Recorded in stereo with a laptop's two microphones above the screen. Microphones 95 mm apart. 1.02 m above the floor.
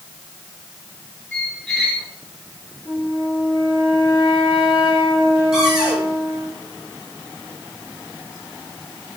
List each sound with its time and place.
1.3 s a squeak: 5° left (ahead or behind), 2.5 m
2.9 s a flute: 75° right (ahead or behind), 3.5 m
5.5 s a cupboard door: 10° right (ahead or behind), 5 m